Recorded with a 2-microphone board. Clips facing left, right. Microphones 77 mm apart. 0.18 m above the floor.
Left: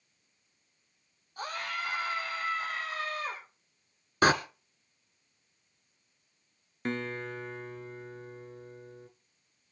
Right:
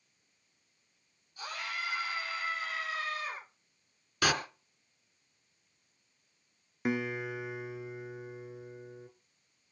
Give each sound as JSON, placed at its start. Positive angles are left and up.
{"t": 1.4, "sound": "a scream", "side_deg": 50, "distance_m": 6.0}
{"t": 4.2, "sound": "a door slam", "side_deg": 35, "distance_m": 1.6}
{"t": 6.8, "sound": "a guitar", "side_deg": -10, "distance_m": 1.0}